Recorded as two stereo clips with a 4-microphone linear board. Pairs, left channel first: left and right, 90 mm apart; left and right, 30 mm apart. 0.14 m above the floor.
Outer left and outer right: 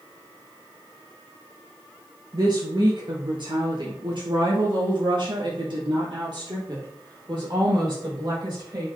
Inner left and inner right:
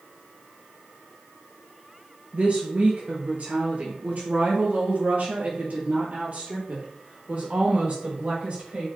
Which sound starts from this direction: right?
A woman speaking, at 2.3 s.